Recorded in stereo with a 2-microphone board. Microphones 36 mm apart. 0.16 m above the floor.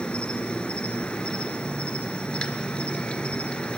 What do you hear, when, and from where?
0.0 s an insect: 25° left (ahead or behind), 1.4 m